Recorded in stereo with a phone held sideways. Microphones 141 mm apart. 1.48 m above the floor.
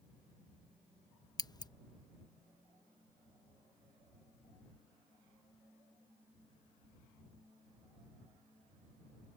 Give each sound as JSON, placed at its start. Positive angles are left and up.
{"t": 1.4, "sound": "scissors", "side_deg": 30}